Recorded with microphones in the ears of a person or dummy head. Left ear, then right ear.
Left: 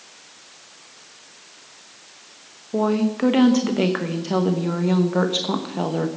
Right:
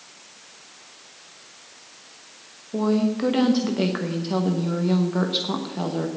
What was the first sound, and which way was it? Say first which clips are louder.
A woman speaking: left 2 dB; 30° left (ahead or behind).